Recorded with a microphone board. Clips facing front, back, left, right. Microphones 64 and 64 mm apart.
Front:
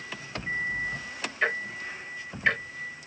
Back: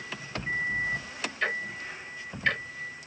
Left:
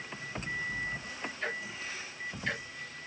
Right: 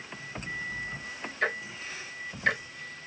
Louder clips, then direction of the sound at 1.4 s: Front 3 dB, right 8 dB; 70° right.